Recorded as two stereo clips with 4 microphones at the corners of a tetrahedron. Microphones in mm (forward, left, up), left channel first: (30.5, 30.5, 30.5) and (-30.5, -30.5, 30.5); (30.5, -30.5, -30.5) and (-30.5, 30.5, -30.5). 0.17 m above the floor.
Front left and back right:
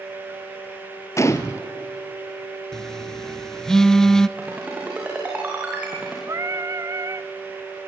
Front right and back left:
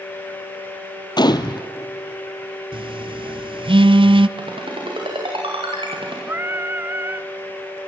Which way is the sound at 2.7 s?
130° left.